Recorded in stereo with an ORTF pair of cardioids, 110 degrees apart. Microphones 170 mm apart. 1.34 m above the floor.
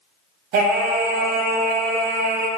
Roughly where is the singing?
Ahead right.